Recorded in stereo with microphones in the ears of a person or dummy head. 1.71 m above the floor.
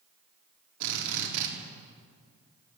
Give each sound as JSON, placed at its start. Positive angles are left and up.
{"t": 0.8, "sound": "a drill", "side_deg": -65, "distance_m": 5.0}